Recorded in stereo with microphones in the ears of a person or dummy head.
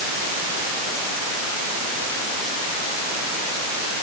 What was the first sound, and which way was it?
Only background noise.